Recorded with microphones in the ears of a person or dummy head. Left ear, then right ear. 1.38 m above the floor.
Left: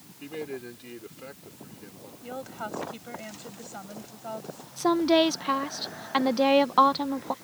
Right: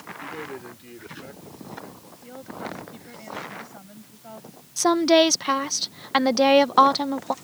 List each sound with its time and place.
0.2 s a man speaking: 15° left (ahead or behind)
2.2 s a woman speaking: 35° left (ahead or behind)
4.8 s a woman speaking: 20° right (ahead or behind)